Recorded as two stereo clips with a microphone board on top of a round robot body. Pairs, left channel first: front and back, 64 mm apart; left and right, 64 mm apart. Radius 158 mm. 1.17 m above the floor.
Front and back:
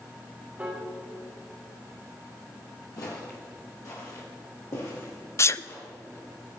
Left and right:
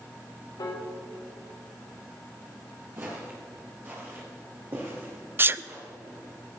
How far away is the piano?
About 2 m.